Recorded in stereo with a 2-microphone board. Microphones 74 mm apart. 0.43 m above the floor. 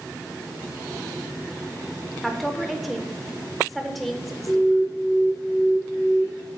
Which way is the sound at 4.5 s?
15° left (ahead or behind).